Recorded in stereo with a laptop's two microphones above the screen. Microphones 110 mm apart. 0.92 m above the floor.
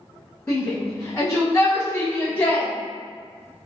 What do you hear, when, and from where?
0.5 s a shout: 20° left (ahead or behind), 1.1 m; by 2.7 s 15° left (ahead or behind), 1.2 m